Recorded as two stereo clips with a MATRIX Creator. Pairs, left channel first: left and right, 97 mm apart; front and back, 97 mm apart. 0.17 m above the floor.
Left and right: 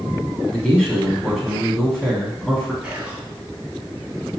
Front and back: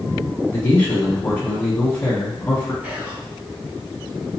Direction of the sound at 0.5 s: 20° left.